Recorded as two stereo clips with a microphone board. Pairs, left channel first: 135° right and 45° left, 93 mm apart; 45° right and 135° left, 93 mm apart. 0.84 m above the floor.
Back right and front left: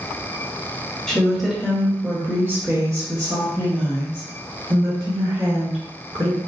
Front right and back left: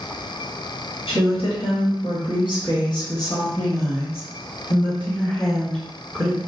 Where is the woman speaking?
50° right, 1.6 m; by 6.4 s 40° left, 2.5 m.